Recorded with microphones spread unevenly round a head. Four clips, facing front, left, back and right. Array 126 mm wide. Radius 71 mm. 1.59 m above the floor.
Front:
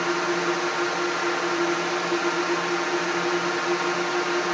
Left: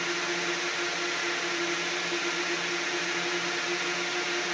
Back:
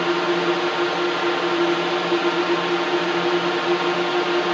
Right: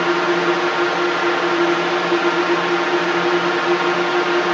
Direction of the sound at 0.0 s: 110° right.